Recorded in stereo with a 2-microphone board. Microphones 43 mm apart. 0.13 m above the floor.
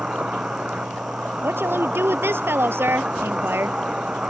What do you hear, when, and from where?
0.0 s an insect: 20° right (ahead or behind)
1.4 s a woman speaking: 65° right (ahead or behind)